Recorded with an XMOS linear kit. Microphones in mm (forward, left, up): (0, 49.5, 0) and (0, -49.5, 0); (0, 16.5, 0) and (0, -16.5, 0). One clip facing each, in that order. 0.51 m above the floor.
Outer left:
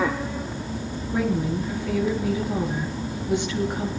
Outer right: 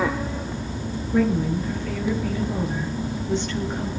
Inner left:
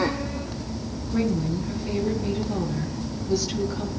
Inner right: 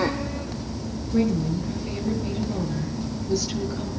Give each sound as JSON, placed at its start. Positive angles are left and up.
{"t": 1.1, "sound": "a woman speaking", "side_deg": 10, "distance_m": 7.5}